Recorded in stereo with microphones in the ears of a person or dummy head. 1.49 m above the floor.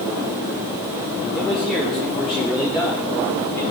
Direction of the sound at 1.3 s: Centre (ahead or behind).